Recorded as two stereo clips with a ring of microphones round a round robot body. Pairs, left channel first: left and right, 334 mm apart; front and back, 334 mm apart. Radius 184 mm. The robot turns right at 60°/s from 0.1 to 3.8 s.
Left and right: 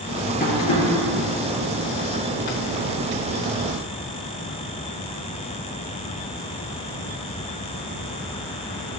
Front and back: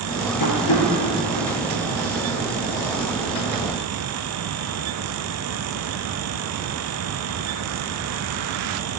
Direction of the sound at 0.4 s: 25° left.